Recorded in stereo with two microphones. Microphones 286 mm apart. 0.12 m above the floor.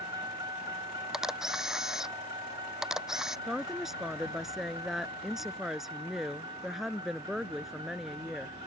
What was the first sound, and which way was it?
A vehicle, 15° right (ahead or behind).